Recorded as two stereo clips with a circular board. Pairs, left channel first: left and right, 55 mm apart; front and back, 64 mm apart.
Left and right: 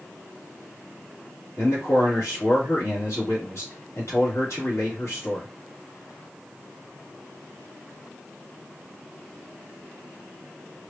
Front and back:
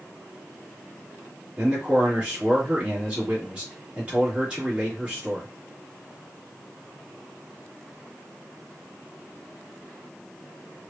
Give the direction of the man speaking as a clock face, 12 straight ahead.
8 o'clock.